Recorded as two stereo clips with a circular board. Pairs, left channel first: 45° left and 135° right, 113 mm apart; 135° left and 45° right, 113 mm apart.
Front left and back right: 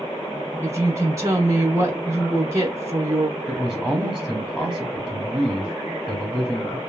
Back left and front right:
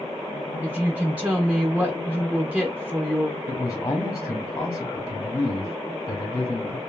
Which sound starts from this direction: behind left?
A man speaking, at 3.5 s.